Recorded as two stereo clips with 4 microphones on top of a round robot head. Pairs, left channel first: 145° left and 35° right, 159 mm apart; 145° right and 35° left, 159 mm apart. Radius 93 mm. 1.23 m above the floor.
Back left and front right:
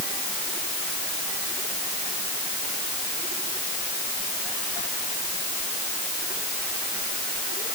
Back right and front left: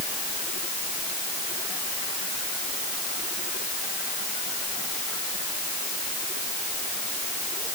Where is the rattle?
I don't hear a rattle.